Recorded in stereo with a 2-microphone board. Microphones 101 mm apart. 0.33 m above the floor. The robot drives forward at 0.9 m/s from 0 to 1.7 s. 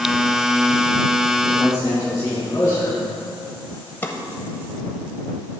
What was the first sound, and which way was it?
A man speaking, 40° left (ahead or behind).